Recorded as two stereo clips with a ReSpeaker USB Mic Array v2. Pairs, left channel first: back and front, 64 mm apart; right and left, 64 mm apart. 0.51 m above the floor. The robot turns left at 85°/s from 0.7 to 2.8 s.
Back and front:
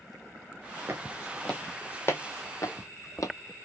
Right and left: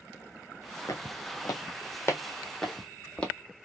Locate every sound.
0.9 s footsteps: 55° right, 1.7 m; by 3.3 s 160° right, 1.2 m